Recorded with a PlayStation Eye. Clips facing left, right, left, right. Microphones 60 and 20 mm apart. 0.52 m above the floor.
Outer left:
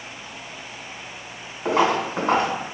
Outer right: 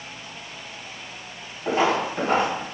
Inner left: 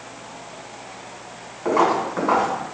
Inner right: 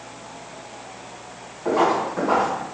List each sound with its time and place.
1.6 s footsteps: 70° left (ahead or behind), 1.9 m